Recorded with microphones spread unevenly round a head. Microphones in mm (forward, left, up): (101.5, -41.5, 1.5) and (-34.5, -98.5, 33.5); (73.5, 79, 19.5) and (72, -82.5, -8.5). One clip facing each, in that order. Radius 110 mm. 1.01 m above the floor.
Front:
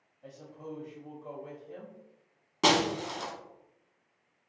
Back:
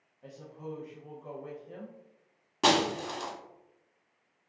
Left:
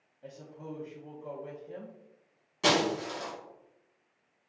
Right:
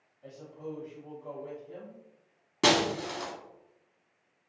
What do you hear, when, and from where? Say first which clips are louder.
0.2 s a woman speaking: back 1 dB, right 3 dB; 155° left, 0.6 m
2.6 s breaking glass: even, right 1 dB; 75° right, 0.9 m